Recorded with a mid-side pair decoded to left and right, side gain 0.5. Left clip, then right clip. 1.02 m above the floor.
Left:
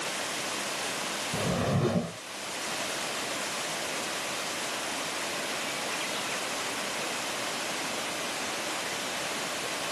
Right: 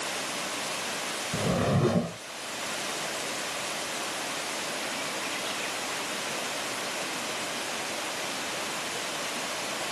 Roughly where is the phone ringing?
I don't hear a phone ringing.